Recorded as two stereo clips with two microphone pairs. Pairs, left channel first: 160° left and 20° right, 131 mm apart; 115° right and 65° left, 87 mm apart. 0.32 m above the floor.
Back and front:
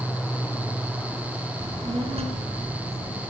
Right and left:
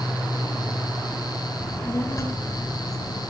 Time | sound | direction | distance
1.6 | a child speaking | 55° right | 2.5 m